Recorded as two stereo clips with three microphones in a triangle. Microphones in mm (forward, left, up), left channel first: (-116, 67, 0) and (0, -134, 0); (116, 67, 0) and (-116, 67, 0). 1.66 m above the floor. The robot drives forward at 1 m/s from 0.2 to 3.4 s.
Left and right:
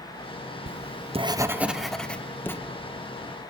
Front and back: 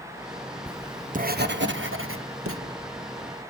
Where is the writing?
95° right, 0.7 m; by 2.6 s 160° right, 2 m.